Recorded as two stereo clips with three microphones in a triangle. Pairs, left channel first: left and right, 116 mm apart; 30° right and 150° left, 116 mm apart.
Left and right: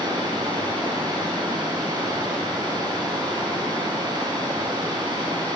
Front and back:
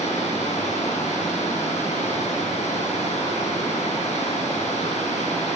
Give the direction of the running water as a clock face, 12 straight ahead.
1 o'clock.